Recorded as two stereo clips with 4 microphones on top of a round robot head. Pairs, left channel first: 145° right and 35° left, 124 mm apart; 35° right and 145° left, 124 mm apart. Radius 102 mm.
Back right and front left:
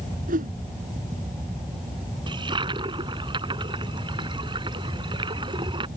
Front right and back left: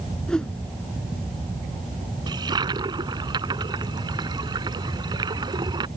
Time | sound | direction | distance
0.3 | a whoosh | 50° left | ?
2.3 | a toilet flushing | 90° left | ?